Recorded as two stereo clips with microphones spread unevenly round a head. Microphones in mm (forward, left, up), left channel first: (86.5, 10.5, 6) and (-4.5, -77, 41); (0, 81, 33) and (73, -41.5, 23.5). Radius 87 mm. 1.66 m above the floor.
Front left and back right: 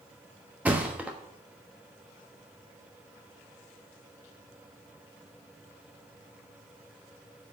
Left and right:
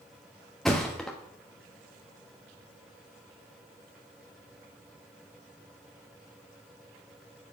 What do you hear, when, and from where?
0.7 s a thud: 160° right, 1.1 m